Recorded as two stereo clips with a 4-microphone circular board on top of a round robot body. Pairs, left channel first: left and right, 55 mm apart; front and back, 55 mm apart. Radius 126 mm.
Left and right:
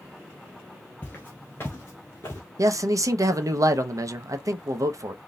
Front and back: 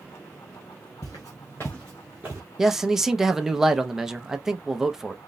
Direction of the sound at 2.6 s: 100° right.